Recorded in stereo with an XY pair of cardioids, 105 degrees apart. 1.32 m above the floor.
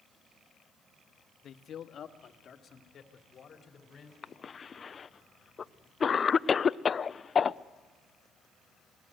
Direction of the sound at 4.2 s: 35° left.